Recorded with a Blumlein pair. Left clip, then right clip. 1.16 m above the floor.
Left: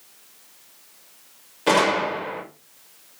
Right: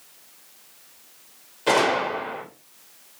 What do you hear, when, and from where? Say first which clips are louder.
1.7 s a gunshot: left 1 dB; 10° left, 2 m